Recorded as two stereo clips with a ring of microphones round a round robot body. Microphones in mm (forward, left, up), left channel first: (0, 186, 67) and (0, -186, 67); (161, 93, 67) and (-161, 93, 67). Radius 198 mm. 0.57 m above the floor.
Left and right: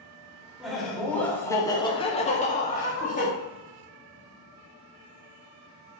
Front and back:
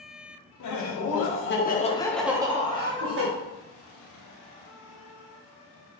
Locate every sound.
0.6 s laughter: straight ahead, 1.1 m; by 3.3 s 155° left, 0.9 m